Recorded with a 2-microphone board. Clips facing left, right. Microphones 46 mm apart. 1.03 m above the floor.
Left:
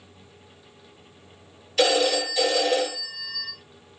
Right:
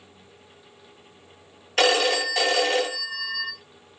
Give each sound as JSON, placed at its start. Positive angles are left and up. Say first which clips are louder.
{"t": 1.8, "sound": "a phone ringing", "louder": "even", "side_deg": -55, "distance_m": 0.9}